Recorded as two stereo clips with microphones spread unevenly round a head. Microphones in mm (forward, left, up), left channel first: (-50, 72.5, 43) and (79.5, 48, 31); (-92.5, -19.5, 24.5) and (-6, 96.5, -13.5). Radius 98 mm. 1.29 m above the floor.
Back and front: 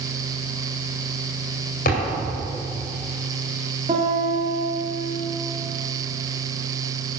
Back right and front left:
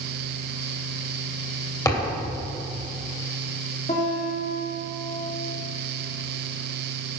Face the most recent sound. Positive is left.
turn(degrees=-70)